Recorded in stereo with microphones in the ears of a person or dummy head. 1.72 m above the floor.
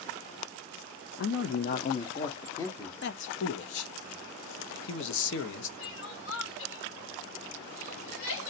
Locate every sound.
1.2 s a man speaking: 70° left (ahead or behind), 0.7 m; by 2.9 s 10° left (ahead or behind), 1.0 m
3.0 s a man speaking: 65° left (ahead or behind), 0.7 m
5.8 s crying: 75° left (ahead or behind), 1.4 m